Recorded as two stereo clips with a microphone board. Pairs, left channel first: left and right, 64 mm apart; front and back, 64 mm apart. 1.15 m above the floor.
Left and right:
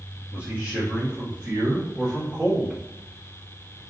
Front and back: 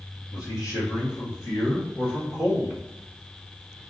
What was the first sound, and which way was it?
A man speaking, 25° right.